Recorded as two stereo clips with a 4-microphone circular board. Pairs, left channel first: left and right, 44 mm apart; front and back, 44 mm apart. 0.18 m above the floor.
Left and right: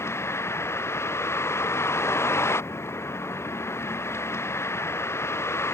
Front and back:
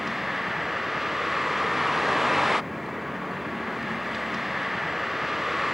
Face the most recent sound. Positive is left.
turn(degrees=95)